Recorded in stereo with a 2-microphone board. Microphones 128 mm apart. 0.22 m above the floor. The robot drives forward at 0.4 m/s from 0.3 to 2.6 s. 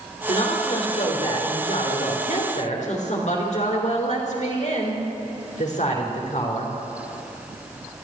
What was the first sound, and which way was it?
A woman speaking, 60° left (ahead or behind).